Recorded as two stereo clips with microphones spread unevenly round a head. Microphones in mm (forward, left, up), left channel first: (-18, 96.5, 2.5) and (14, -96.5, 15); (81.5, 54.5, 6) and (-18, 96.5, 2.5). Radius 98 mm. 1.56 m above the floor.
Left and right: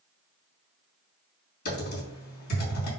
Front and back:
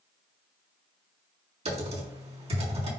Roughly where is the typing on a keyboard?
Behind left.